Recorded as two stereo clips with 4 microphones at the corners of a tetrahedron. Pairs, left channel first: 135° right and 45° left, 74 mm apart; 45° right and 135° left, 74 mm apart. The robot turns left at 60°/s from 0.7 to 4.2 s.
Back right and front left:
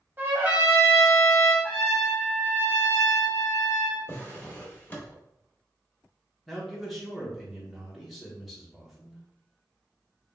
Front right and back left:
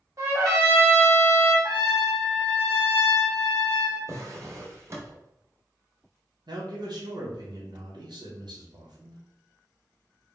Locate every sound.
0.2 s a trumpet: 105° left, 0.9 m; by 1.5 s 50° left, 0.9 m
1.6 s a trumpet: 165° left, 1.0 m; by 4.0 s 20° left, 1.0 m
4.1 s a drawer: 175° left, 0.7 m; by 5.2 s 170° left, 0.7 m
6.5 s a man speaking: 135° left, 0.8 m